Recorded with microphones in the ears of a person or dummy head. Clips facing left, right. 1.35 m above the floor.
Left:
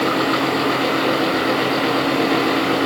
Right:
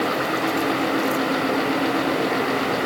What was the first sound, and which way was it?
Only background noise.